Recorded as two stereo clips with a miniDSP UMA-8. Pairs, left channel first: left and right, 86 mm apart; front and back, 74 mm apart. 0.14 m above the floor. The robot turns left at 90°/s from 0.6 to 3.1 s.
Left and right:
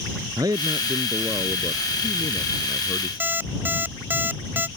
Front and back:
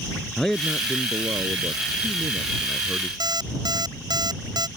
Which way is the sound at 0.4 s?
85° right.